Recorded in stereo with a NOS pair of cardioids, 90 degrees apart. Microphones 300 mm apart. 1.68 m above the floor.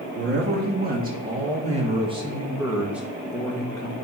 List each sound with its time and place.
0.1 s a man speaking: 35° right, 2.5 m; by 4.0 s 15° left, 1.5 m